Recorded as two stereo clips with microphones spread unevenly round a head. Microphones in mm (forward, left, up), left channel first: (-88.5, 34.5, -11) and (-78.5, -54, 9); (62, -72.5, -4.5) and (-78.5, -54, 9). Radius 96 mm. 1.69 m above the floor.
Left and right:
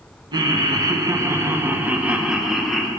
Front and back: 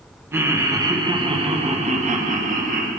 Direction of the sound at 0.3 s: 115° right.